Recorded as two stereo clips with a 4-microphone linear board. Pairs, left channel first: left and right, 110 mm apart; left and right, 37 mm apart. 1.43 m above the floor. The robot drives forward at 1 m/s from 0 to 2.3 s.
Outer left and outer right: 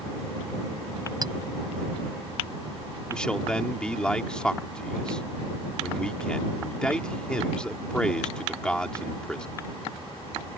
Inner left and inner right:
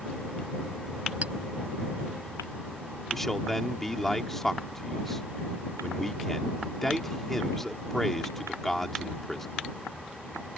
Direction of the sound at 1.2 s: 40° right (ahead or behind).